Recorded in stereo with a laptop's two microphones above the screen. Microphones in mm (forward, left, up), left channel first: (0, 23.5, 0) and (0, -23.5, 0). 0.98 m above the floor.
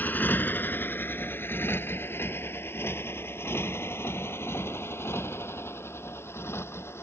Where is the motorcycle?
40° left (ahead or behind); by 7.0 s 65° left (ahead or behind).